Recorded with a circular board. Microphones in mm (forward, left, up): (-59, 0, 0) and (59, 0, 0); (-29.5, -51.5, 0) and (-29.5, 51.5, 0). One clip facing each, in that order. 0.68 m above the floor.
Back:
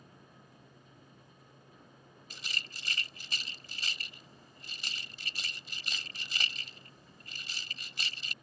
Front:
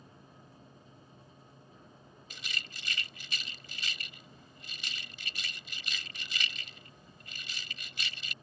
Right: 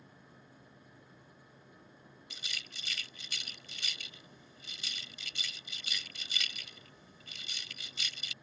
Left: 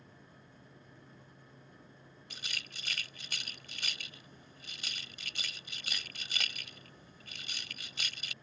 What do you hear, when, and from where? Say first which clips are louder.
2.3 s a rattle: even, left 2 dB; 125° left